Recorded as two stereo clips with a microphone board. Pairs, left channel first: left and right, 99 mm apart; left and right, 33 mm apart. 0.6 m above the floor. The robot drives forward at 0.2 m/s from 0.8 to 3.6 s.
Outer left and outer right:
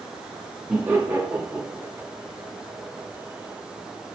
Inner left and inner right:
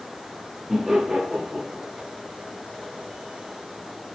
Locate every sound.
0.7 s laughter: 20° right (ahead or behind), 0.6 m; by 1.8 s 15° right (ahead or behind), 0.7 m